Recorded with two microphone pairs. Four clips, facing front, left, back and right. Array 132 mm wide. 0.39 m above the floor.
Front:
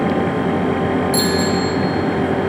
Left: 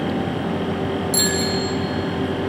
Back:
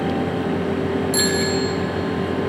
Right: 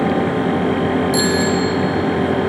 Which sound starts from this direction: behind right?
A bicycle bell, at 1.1 s.